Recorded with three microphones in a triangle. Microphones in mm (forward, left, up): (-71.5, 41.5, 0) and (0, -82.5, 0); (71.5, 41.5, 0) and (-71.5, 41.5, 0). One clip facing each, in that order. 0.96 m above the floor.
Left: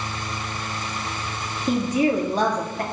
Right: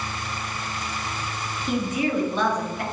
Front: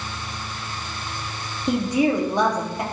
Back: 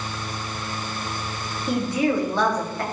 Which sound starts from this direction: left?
A woman speaking, at 1.7 s.